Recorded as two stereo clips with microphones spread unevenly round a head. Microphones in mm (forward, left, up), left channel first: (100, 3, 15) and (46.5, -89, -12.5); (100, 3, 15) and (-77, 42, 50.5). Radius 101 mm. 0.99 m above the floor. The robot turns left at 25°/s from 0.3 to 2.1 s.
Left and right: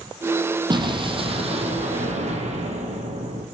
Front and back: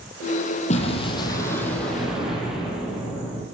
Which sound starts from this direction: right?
An explosion, at 0.7 s.